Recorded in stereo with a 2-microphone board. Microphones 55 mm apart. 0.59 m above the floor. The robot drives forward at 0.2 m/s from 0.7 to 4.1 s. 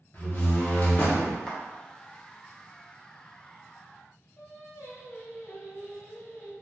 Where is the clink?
I don't hear a clink.